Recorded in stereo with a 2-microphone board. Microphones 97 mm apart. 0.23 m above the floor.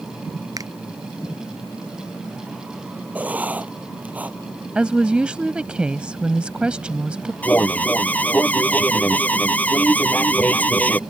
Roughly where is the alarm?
Centre.